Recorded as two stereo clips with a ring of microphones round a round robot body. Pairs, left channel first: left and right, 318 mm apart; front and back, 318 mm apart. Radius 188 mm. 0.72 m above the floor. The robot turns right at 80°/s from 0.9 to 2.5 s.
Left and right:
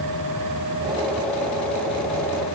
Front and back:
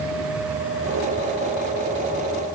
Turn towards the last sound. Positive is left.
No sound to turn to.